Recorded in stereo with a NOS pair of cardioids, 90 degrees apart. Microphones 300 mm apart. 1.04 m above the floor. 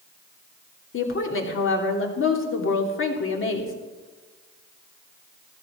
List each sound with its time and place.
0.9 s a woman speaking: 45° left, 2.5 m